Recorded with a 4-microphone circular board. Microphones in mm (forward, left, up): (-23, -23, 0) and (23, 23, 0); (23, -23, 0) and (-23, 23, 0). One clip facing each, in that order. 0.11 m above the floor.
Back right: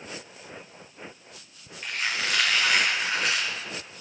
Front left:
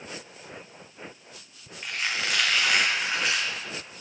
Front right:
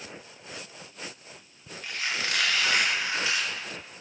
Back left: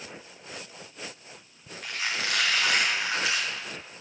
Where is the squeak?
135° left, 3.5 m.